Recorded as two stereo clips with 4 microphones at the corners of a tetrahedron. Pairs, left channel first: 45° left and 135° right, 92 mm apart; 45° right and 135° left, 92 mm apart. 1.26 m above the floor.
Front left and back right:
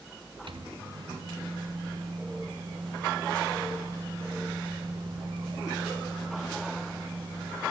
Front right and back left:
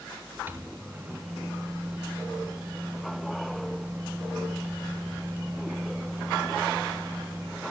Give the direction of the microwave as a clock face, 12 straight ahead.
5 o'clock.